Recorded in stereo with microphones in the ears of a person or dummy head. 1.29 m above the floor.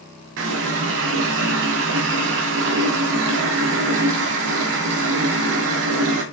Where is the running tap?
65° right (ahead or behind), 0.9 m.